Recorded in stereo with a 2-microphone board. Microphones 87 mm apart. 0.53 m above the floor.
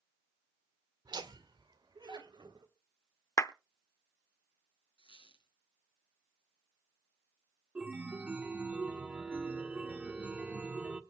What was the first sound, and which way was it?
Laughter, 55° right (ahead or behind).